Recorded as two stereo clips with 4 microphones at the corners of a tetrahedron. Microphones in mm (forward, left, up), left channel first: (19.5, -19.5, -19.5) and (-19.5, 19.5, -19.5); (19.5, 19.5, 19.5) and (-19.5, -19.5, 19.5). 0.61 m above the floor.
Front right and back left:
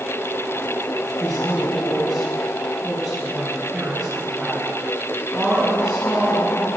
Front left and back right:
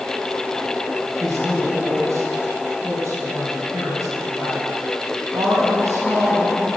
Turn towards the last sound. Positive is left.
turn(degrees=-130)